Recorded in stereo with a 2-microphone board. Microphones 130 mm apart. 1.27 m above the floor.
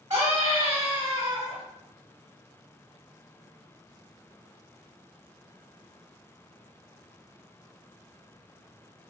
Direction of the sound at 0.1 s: 35° right (ahead or behind).